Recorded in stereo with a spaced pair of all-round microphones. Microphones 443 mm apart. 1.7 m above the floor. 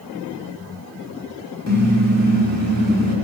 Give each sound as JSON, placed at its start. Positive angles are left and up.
{"t": 1.7, "sound": "a car horn", "side_deg": -35, "distance_m": 9.5}